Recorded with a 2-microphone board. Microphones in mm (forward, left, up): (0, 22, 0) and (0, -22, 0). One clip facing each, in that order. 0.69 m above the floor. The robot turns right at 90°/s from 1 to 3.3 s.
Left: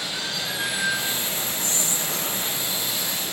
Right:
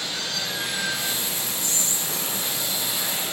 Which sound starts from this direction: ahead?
Running water, at 0.0 s.